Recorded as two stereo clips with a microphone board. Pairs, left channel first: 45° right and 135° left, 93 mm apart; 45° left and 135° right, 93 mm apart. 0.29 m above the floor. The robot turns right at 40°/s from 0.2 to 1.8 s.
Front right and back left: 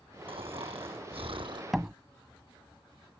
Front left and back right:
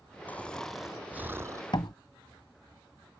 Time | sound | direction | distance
0.3 | snoring | 115° left | ?
1.7 | a door slam | 50° left | ?